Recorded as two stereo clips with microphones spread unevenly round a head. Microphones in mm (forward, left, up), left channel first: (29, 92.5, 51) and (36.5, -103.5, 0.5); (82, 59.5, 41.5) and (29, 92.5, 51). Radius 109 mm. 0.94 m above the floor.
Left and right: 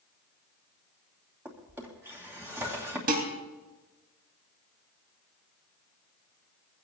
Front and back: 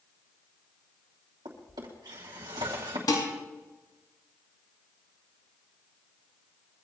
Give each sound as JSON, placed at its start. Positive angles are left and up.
{"t": 1.4, "sound": "a drawer", "azimuth_deg": -170, "distance_m": 2.5}
{"t": 3.1, "sound": "dishes clattering", "azimuth_deg": -40, "distance_m": 5.0}